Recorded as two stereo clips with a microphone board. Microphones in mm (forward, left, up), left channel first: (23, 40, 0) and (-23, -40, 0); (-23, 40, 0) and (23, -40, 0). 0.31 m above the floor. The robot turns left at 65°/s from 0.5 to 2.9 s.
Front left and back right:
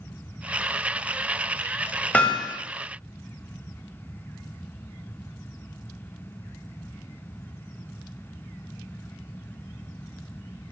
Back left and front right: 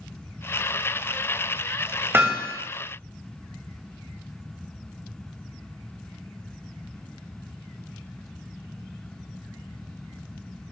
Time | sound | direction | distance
2.1 | hammering | 5° right | 1.6 m